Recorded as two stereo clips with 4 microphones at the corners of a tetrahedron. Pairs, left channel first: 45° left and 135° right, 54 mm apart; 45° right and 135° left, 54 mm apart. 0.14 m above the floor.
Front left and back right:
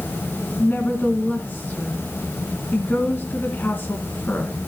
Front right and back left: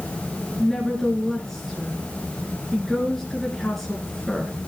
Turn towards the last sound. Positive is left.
turn(degrees=35)